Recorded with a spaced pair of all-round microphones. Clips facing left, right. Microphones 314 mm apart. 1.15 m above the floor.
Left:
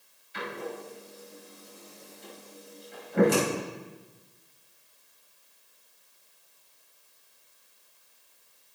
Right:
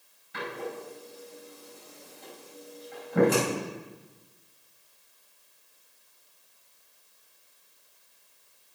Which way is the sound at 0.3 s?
70° right (ahead or behind).